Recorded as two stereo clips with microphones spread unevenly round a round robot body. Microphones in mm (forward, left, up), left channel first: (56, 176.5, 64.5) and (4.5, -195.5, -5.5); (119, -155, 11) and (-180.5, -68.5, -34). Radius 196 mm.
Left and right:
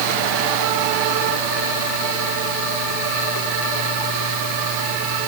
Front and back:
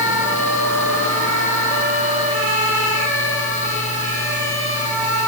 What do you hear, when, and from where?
Only background noise.